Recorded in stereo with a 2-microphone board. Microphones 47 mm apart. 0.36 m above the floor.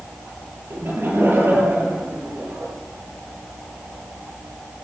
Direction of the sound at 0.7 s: 55° right (ahead or behind).